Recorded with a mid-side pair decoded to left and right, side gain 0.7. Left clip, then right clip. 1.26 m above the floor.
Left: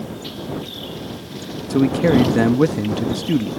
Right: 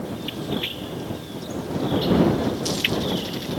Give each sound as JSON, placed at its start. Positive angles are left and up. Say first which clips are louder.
{"t": 1.7, "sound": "a man speaking", "louder": "left 6 dB", "azimuth_deg": 65}